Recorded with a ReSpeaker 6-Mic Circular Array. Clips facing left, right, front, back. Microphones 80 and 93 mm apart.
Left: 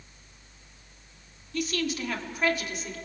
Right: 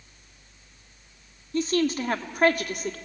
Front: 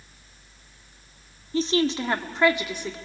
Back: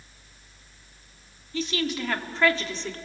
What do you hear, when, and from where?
1.5 s a woman speaking: 40° right, 1.3 m; by 3.0 s 80° right, 1.6 m